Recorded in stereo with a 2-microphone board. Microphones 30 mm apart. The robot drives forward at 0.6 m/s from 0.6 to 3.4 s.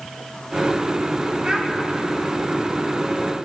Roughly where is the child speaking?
Right.